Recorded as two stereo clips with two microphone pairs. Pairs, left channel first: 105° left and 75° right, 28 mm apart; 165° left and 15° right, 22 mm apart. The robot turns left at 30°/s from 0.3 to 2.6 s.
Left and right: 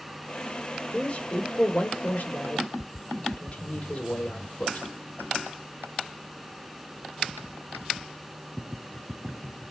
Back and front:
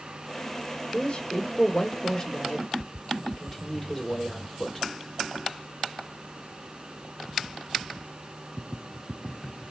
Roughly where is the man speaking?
Behind left.